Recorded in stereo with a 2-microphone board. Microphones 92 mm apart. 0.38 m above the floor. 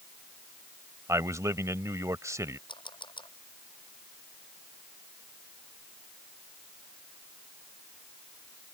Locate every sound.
1.1 s a man speaking: 35° right (ahead or behind)
2.7 s a camera shutter: 60° left (ahead or behind)